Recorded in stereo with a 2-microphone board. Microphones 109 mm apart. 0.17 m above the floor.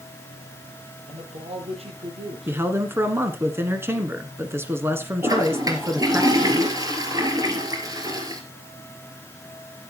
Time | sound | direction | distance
1.1 | a man speaking | 70° right (ahead or behind) | 6 m
2.5 | a man speaking | 20° right (ahead or behind) | 1.5 m
5.2 | a toilet flushing | 35° right (ahead or behind) | 2 m